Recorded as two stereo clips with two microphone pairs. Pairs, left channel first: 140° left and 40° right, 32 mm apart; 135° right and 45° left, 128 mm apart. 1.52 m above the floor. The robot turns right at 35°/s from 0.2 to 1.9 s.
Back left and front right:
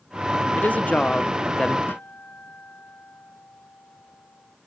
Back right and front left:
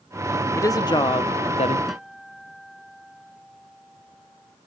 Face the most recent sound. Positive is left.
turn(degrees=135)